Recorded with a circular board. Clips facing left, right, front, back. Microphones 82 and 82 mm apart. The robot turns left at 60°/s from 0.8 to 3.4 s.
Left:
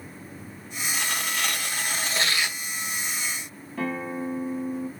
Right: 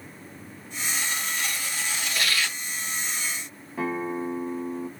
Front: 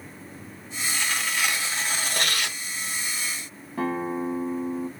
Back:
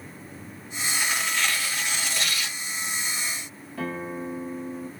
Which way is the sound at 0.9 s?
105° left.